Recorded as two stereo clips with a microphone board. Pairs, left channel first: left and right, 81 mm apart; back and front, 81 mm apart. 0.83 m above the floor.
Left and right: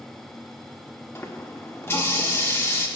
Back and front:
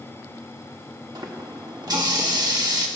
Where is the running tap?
30° left, 1.3 m.